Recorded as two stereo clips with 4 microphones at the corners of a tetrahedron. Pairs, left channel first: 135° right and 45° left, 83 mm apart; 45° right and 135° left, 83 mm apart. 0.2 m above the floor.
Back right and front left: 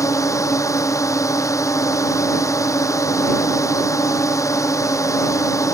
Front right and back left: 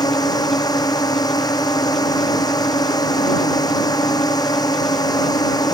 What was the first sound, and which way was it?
A drone, 85° right.